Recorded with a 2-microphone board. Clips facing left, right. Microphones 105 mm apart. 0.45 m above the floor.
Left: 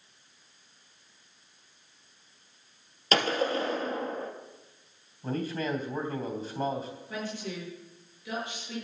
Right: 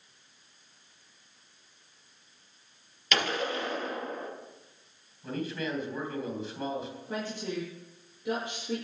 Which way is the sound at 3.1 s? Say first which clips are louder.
Left 4 dB; 35° left (ahead or behind).